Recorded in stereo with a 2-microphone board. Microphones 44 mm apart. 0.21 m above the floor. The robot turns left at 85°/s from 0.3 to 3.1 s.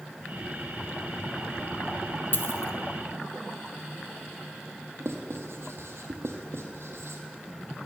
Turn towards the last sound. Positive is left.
turn(degrees=-75)  # may be behind; listen again after turning